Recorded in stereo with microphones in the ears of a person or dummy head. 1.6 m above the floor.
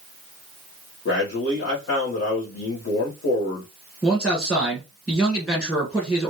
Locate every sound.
1.1 s a man speaking: 65° left (ahead or behind), 1.4 m
4.0 s a man speaking: 5° left (ahead or behind), 1.4 m